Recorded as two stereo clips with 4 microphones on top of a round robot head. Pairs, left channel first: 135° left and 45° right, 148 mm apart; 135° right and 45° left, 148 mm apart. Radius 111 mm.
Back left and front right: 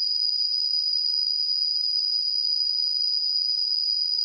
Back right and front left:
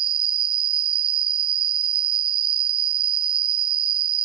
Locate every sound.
0.0 s an insect: 40° left, 0.8 m